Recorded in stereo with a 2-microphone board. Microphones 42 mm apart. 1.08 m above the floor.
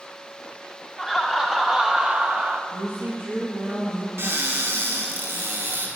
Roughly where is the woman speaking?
Right.